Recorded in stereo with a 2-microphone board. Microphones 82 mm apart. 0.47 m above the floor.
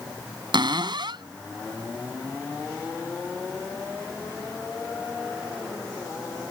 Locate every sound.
0.5 s a cupboard door: 70° right (ahead or behind)